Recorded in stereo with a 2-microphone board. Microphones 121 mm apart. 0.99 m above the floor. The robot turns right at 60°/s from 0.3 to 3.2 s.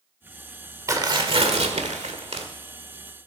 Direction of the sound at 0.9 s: 150° right.